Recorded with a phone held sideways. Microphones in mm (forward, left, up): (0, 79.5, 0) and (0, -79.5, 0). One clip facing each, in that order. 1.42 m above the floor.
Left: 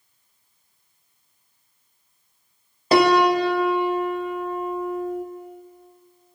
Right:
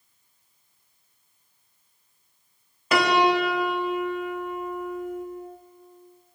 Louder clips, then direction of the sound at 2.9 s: Left 4 dB; 35° left (ahead or behind).